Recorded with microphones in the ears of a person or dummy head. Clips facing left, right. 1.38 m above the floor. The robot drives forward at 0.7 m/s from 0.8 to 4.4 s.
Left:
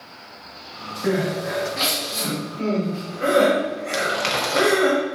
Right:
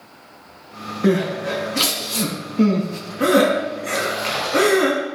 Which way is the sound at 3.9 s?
75° left (ahead or behind).